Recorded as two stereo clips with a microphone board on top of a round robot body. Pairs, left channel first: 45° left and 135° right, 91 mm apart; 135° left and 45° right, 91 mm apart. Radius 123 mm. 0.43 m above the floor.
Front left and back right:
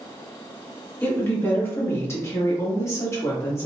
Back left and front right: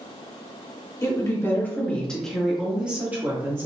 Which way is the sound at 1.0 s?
105° left.